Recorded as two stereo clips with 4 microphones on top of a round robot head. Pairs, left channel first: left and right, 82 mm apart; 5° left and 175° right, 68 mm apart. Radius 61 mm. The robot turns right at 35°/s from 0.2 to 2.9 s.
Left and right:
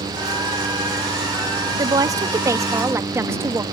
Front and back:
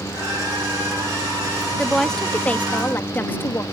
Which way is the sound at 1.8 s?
80° right.